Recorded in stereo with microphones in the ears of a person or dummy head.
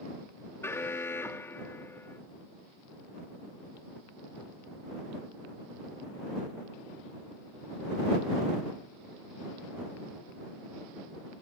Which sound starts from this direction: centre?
An alarm, at 0.6 s.